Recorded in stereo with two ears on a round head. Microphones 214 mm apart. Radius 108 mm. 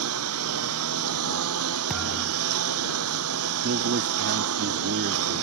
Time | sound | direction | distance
0.0 | a lawn mower | 65° right (ahead or behind) | ?
1.9 | a thud | centre (ahead or behind) | ?
3.6 | a man speaking | 50° right (ahead or behind) | ?